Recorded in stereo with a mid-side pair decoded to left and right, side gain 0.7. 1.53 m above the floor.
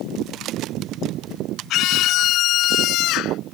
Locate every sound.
1.7 s a scream: 55° left